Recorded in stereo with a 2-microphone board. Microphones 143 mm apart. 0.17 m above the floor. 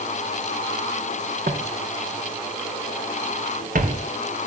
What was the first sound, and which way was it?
Footsteps, 75° right (ahead or behind).